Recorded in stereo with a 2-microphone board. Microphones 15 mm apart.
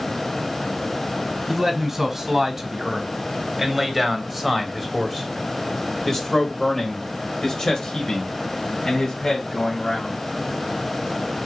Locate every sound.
1.5 s a man speaking: 20° right (ahead or behind), 3.5 m; by 10.2 s 65° left (ahead or behind), 3 m